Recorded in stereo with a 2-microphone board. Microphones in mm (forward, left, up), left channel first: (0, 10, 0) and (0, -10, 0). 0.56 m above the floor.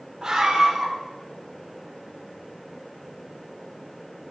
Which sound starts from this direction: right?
A scream, at 0.2 s.